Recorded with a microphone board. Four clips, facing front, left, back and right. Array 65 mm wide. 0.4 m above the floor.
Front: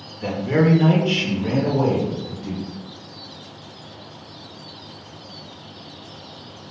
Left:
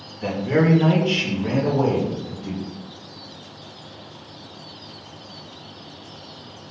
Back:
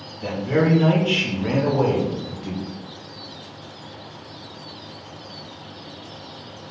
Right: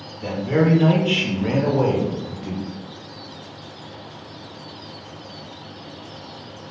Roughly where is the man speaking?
Ahead left.